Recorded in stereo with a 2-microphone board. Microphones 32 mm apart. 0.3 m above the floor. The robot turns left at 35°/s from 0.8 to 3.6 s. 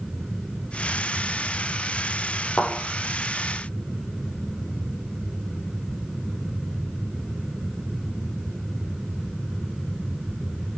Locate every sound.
2.6 s a thud: 85° left, 5.5 m; by 2.7 s 80° left, 5.5 m